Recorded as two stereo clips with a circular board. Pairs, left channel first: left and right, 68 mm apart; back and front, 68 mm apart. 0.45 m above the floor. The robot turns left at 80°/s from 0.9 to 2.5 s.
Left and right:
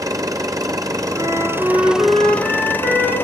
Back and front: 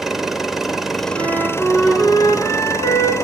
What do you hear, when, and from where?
0.0 s an engine running: 85° right, 1.4 m; by 3.2 s 145° left, 1.4 m
1.1 s a flute: 40° right, 4.5 m; by 3.1 s 145° right, 4.5 m